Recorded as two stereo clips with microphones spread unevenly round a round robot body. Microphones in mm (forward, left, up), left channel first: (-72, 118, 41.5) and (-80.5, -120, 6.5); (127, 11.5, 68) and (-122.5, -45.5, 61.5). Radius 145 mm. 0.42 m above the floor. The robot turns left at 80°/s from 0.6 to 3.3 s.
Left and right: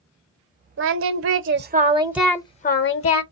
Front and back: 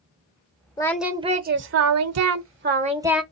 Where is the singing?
60° right, 0.9 m; by 3.2 s 100° left, 0.9 m.